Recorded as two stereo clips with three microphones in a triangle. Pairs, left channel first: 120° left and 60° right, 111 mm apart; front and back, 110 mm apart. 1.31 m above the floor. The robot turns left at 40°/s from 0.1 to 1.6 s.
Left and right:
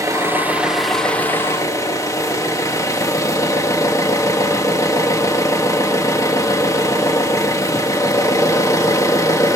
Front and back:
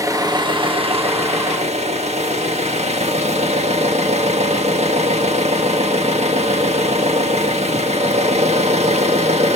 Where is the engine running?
120° right, 1.4 m; by 9.6 s straight behind, 1.4 m.